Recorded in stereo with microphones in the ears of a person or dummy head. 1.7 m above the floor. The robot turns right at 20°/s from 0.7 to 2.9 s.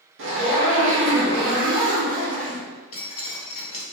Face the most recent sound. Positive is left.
turn(degrees=35)  # may be behind; listen again after turning